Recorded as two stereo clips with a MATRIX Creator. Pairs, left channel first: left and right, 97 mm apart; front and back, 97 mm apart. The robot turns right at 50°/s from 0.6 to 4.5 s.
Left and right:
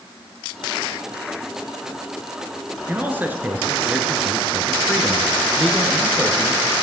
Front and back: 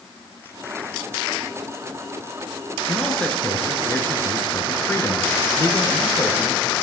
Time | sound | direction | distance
2.9 | a man speaking | 85° right | 1.2 m